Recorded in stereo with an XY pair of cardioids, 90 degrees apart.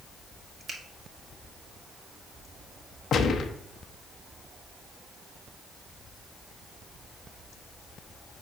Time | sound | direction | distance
0.7 | a finger snap | 50° right | 1.7 m
3.1 | a gunshot | 65° left | 0.8 m